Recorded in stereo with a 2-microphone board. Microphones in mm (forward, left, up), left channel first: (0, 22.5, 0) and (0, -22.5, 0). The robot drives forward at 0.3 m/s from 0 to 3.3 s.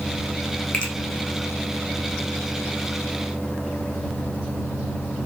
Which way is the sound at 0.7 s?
25° left (ahead or behind).